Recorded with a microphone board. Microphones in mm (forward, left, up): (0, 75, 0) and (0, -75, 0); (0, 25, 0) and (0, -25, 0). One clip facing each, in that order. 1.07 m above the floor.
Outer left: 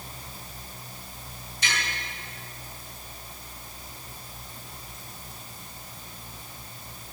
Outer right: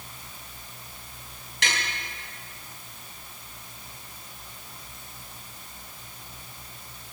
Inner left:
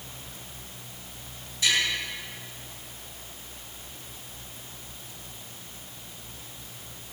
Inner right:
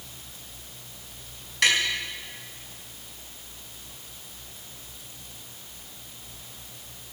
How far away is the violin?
No violin in this recording.